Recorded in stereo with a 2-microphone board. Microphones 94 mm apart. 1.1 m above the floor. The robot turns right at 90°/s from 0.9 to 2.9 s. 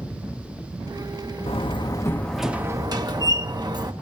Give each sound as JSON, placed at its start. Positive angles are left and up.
{"t": 1.5, "sound": "a door slam", "azimuth_deg": 95, "distance_m": 1.3}